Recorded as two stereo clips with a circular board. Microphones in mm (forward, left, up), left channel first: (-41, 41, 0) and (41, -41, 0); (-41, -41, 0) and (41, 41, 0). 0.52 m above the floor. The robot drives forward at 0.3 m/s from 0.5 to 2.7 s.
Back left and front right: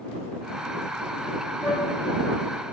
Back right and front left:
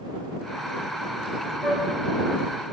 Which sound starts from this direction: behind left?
A flute, at 1.6 s.